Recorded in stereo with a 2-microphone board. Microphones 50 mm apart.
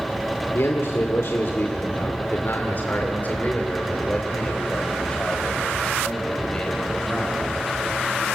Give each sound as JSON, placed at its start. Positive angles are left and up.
{"t": 0.5, "sound": "a man speaking", "side_deg": 60, "distance_m": 2.0}